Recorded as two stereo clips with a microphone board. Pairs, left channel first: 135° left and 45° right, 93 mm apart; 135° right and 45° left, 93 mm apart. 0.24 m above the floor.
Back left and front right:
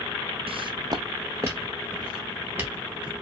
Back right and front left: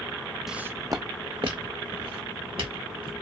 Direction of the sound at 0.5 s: 40° right.